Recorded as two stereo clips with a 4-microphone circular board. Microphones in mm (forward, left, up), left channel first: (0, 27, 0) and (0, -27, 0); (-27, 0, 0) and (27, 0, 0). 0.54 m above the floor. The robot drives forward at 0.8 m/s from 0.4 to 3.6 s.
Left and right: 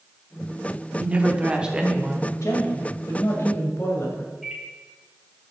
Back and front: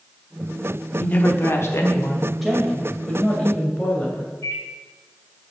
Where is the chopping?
I don't hear chopping.